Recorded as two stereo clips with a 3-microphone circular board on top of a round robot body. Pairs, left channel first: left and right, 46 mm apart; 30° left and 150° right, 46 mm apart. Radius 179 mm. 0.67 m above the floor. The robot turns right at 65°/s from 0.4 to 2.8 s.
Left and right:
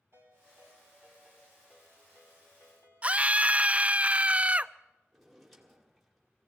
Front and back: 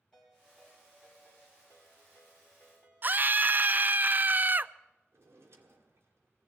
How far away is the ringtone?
About 8 m.